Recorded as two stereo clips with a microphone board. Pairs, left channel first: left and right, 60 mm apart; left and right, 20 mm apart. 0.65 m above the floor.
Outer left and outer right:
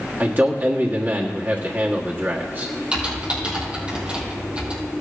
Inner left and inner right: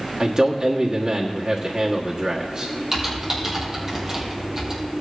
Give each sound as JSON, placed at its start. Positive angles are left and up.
{"t": 0.2, "sound": "a man speaking", "side_deg": -35, "distance_m": 1.4}
{"t": 2.9, "sound": "typing on a keyboard", "side_deg": -20, "distance_m": 4.5}